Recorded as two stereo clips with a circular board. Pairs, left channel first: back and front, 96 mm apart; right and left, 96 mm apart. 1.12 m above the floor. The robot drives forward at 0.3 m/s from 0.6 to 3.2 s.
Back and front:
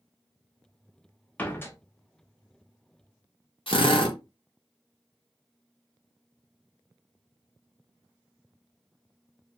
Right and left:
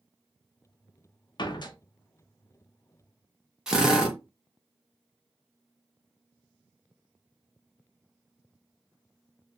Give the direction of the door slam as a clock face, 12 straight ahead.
4 o'clock.